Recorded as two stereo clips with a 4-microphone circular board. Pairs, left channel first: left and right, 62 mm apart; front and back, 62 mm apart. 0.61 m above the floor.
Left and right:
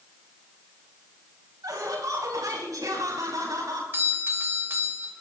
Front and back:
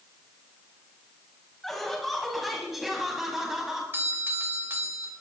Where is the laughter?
85° right, 5 m; by 3.8 s 95° right, 5.5 m.